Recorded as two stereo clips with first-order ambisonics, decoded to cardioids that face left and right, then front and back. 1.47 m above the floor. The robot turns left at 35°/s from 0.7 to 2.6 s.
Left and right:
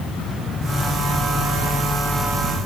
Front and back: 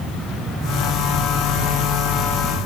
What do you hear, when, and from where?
Only background noise.